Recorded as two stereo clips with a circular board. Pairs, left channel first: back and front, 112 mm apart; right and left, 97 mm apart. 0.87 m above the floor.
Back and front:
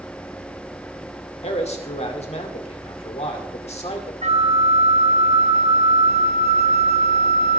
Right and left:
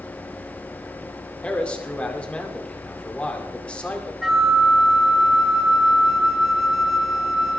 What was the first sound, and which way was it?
A man speaking, 165° right.